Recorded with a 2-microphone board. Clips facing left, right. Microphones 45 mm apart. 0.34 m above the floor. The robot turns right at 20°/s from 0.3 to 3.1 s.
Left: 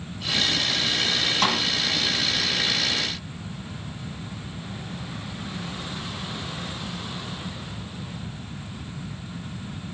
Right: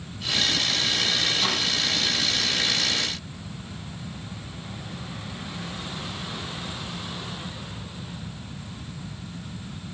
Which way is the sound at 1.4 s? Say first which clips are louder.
Left 3 dB; 60° left (ahead or behind).